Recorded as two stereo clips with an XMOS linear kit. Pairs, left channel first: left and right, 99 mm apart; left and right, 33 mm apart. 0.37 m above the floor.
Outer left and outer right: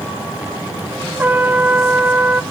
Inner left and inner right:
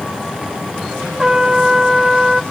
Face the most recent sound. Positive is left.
turn(degrees=-20)  # may be behind; listen again after turning